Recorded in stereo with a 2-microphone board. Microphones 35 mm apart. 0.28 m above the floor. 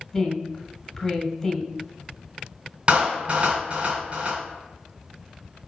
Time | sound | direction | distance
0.1 | a woman speaking | 15° left (ahead or behind) | 1.8 m
2.9 | a clap | 30° right (ahead or behind) | 3 m